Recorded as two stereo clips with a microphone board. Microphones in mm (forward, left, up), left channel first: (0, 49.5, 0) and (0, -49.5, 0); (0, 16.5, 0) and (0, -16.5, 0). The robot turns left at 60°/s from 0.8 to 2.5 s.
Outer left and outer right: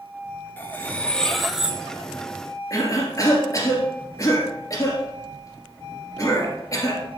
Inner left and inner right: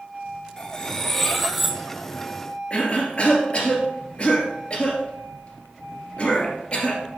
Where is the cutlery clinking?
20° left (ahead or behind), 0.8 m; by 1.8 s 10° right (ahead or behind), 0.8 m.